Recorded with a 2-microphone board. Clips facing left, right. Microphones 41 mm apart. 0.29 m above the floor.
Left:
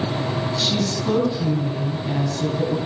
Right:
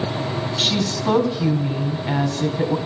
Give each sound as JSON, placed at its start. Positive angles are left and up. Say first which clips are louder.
{"t": 0.6, "sound": "a woman speaking", "louder": "right 4 dB", "side_deg": -45, "distance_m": 2.5}